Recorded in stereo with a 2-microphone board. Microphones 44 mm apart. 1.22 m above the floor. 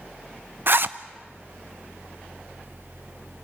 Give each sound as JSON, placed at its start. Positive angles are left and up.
{"t": 0.7, "sound": "a zipper", "side_deg": -55, "distance_m": 0.7}